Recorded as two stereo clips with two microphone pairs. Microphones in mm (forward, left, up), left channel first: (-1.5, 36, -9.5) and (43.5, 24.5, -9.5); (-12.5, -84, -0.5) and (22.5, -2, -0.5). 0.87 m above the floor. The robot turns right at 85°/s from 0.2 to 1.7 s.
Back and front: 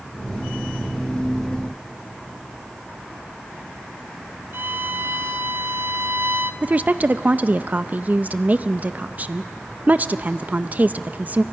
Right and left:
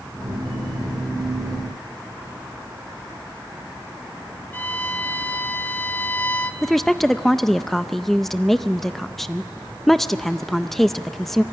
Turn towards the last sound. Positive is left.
turn(degrees=-35)